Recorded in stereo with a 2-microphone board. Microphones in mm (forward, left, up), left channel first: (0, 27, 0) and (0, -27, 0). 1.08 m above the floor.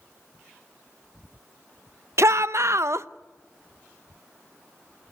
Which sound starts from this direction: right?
A shout, at 2.2 s.